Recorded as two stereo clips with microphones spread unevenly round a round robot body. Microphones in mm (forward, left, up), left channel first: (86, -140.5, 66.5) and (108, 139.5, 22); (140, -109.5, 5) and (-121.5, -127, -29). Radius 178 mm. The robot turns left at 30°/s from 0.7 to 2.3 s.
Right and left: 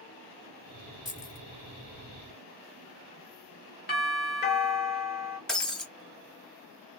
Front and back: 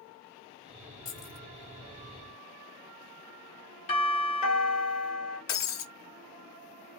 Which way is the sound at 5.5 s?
10° right.